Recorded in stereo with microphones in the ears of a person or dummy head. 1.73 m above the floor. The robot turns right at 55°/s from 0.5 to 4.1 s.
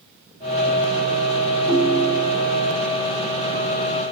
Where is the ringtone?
35° left, 1.4 m; by 2.4 s 75° left, 1.4 m.